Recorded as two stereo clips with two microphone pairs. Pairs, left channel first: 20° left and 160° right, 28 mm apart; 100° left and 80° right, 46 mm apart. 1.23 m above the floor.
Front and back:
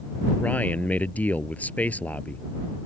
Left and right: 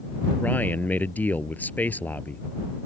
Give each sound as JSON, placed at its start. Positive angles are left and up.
{"t": 0.4, "sound": "a man speaking", "azimuth_deg": 45}